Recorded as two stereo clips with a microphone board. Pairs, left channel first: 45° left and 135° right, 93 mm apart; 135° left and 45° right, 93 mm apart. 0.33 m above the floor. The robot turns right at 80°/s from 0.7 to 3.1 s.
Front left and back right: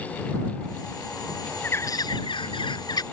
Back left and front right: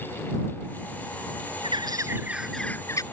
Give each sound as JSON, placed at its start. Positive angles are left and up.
{"t": 1.6, "sound": "a bird", "azimuth_deg": -25}